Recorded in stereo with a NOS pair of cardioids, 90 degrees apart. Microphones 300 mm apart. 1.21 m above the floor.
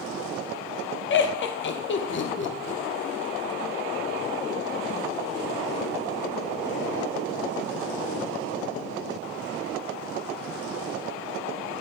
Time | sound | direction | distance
1.1 | laughter | 40° left | 0.6 m